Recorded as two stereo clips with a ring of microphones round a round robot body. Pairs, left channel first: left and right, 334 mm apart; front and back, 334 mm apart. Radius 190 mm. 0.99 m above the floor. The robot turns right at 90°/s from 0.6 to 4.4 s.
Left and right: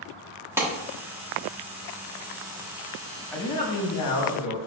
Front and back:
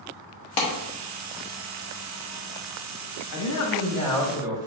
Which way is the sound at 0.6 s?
5° right.